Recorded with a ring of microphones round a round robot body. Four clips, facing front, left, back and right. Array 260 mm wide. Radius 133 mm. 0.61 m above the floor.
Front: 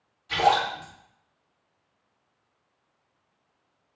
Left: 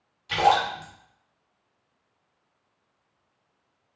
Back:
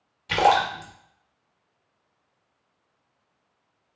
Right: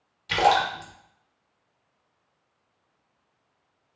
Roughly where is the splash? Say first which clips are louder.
Even, back 3 dB; behind.